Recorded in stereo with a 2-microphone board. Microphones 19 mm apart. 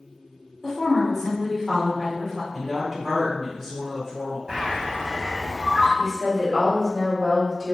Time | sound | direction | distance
0.6 | a woman speaking | 20° left (ahead or behind) | 1.3 m
2.5 | a woman speaking | 5° right (ahead or behind) | 1.2 m
4.5 | a bird | 45° right (ahead or behind) | 1.5 m
6.0 | a woman speaking | 20° right (ahead or behind) | 1.7 m